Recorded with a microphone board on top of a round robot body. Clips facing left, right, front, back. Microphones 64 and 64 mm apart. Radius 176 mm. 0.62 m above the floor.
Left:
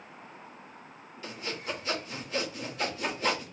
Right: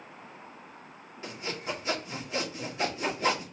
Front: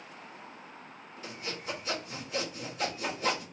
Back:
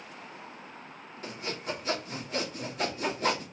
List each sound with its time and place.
1.2 s sawing: 155° right, 2 m